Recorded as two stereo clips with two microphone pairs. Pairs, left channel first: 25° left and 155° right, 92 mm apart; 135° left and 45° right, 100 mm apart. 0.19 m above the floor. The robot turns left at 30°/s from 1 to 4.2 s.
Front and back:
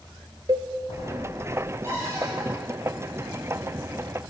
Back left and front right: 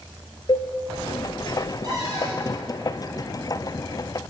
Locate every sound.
0.5 s a cowbell: 170° left, 0.6 m
1.8 s a cupboard door: 95° right, 4 m; by 2.5 s 110° right, 4 m